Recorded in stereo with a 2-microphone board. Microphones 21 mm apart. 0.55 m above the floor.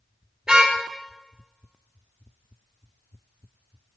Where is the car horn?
30° right (ahead or behind), 5.5 m.